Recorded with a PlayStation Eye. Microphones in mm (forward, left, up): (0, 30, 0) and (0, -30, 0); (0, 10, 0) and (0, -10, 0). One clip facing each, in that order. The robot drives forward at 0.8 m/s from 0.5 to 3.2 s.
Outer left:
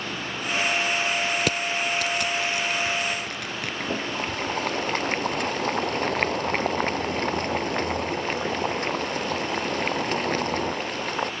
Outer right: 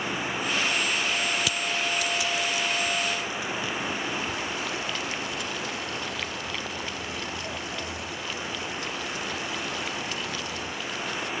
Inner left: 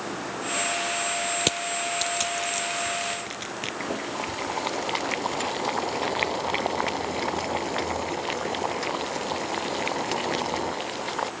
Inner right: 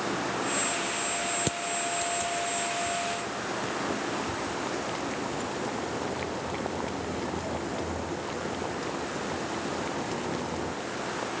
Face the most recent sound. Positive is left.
turn(degrees=50)  # may be behind; listen again after turning